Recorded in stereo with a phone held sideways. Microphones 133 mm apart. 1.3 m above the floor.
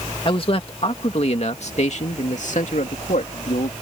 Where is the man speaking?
40° left (ahead or behind); by 3.7 s 75° left (ahead or behind).